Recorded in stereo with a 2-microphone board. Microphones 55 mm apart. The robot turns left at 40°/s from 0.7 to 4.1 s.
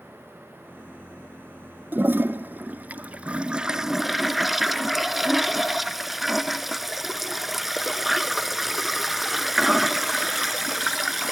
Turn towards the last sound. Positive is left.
turn(degrees=-175)